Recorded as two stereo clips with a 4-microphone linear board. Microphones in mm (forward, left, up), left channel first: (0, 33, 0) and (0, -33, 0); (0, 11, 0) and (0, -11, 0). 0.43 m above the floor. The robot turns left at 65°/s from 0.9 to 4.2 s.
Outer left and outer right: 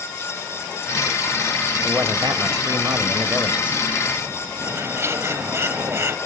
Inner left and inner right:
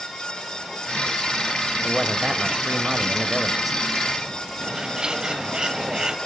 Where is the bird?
40° right (ahead or behind), 0.9 m.